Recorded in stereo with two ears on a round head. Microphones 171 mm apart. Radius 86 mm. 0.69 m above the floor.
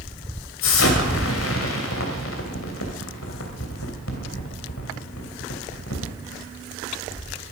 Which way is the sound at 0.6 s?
80° left.